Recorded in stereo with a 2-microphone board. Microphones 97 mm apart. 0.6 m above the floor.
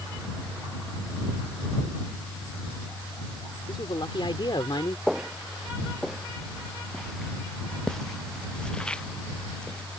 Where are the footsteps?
5° right (ahead or behind); by 10.0 s 15° left (ahead or behind).